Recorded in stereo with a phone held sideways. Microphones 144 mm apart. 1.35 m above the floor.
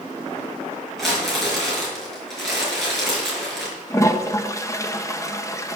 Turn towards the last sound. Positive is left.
turn(degrees=20)  # may be behind; listen again after turning